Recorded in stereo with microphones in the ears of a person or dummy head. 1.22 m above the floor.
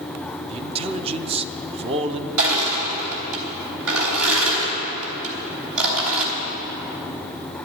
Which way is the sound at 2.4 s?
75° right (ahead or behind).